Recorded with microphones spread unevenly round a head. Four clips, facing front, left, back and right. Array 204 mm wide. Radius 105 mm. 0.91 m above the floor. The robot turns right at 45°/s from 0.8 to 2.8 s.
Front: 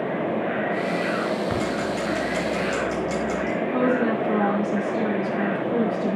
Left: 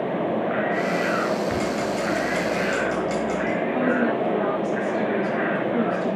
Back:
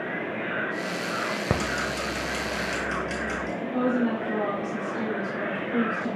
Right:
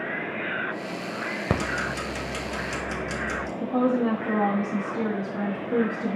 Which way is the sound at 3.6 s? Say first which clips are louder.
Right 1 dB, front 3 dB; 55° right.